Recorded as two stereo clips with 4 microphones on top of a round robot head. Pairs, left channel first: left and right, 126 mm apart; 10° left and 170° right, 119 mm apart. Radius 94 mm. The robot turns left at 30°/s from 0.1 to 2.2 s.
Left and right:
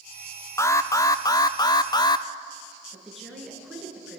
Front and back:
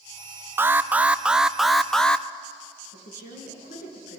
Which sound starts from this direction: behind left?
An alarm, at 0.6 s.